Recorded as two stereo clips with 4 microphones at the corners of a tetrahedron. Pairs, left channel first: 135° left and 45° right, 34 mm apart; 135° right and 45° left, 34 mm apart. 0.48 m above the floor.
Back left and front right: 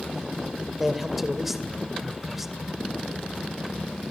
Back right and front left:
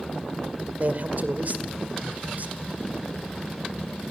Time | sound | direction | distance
0.8 | a man speaking | 35° left | 2 m